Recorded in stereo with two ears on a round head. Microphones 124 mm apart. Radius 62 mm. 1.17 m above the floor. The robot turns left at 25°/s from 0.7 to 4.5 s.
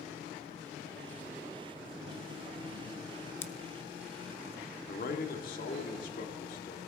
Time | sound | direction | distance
3.4 | scissors | 20° left (ahead or behind) | 0.9 m
4.9 | a man speaking | 70° left (ahead or behind) | 2.5 m